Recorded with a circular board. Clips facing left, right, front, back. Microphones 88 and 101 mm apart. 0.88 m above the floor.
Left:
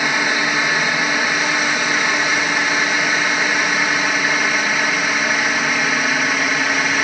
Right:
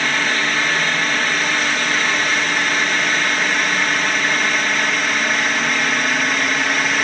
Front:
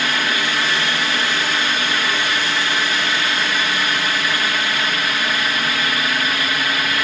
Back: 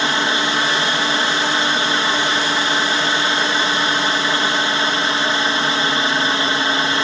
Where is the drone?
155° left; by 7.0 s 170° left.